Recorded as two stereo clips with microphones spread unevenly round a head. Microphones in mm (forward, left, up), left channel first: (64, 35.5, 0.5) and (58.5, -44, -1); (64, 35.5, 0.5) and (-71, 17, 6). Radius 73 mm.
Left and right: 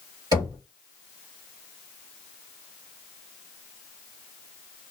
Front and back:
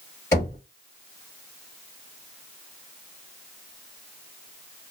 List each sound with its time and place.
0.3 s knocking: 65° right, 1.7 m